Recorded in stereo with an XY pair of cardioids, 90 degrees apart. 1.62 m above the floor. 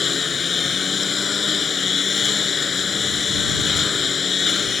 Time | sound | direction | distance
0.0 | a lawn mower | 45° left | ?